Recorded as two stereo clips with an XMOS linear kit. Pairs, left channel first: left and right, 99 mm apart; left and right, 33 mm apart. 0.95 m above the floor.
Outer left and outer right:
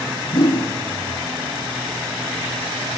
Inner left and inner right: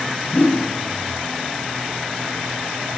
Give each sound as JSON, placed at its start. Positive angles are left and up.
{"t": 0.3, "sound": "a whoosh", "side_deg": 65, "distance_m": 2.0}